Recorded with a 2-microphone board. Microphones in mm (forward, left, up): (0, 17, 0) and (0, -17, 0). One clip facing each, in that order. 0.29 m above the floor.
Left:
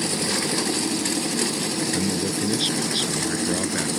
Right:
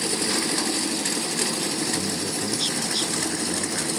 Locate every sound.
1.9 s a man speaking: 15° left (ahead or behind)